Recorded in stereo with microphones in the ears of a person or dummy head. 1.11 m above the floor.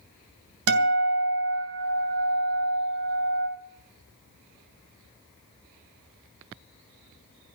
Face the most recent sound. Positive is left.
turn(degrees=-80)